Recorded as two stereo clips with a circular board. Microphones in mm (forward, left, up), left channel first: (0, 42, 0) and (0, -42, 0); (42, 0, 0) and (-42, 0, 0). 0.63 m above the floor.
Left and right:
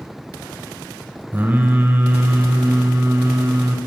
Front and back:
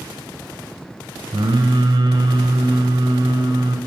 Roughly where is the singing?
Behind.